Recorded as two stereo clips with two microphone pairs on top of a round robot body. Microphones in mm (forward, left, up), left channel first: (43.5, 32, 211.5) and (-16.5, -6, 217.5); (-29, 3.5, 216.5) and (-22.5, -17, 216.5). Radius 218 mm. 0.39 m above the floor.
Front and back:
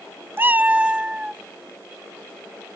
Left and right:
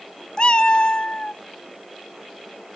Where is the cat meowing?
150° left; by 1.4 s 130° left.